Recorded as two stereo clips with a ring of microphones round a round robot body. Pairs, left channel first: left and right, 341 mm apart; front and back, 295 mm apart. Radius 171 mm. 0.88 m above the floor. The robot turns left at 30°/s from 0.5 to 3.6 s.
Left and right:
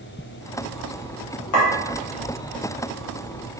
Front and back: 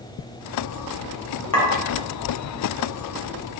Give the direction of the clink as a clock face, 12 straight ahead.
10 o'clock.